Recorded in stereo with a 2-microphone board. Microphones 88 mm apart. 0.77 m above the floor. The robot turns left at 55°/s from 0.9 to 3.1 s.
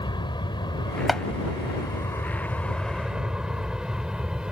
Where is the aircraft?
60° left (ahead or behind); by 4.5 s 10° right (ahead or behind).